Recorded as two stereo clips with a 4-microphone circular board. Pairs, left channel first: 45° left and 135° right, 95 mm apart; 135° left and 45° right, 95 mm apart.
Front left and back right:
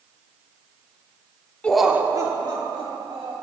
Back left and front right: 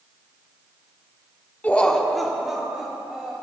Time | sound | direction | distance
1.6 | laughter | 100° left | 0.7 m